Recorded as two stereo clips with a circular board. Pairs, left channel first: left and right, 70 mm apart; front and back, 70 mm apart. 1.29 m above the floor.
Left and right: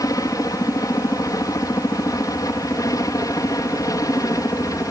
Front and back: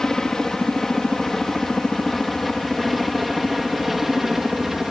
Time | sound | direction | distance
0.0 | a helicopter | 80° left | ?